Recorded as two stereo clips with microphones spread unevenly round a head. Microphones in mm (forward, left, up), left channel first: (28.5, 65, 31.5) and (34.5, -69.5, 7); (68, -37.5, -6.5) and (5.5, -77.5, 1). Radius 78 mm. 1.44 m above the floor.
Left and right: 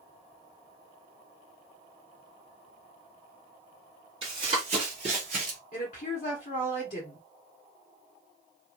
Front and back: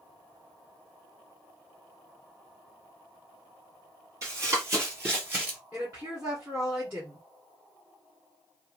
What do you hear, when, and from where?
4.2 s running footsteps: 145° right, 1.9 m; by 5.6 s 100° right, 1.7 m
5.7 s a woman speaking: 135° left, 1.3 m